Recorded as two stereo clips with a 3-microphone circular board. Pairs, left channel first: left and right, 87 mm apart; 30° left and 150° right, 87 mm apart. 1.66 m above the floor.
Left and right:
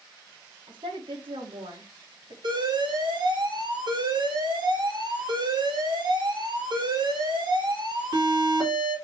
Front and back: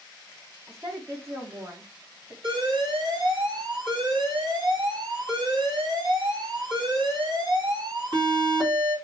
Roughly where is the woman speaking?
Right.